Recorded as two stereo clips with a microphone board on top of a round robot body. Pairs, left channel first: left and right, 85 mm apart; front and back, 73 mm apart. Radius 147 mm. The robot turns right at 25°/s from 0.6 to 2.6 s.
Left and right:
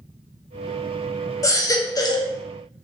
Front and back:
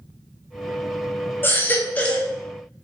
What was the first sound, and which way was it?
A baby crying, 50° left.